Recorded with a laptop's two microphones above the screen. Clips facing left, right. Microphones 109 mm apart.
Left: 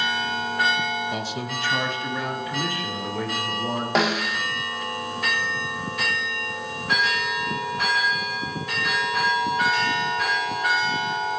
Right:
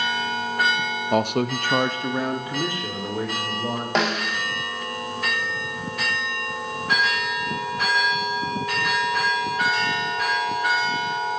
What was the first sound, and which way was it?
A man speaking, 45° right (ahead or behind).